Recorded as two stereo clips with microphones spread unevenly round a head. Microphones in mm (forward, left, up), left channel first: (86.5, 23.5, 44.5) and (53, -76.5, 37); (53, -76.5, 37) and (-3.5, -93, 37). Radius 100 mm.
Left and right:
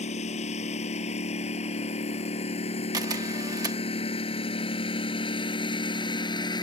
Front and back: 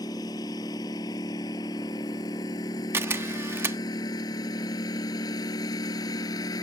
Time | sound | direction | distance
0.0 | a lawn mower | 65° left | ?
2.9 | a camera shutter | 170° right | ?